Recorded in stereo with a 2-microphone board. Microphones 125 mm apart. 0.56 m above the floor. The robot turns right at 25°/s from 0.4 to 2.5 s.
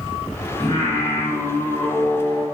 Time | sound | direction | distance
0.6 | singing | 140° left | 1.6 m